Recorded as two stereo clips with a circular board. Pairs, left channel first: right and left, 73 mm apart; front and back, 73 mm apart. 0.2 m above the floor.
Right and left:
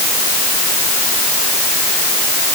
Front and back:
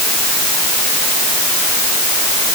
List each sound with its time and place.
Only background noise.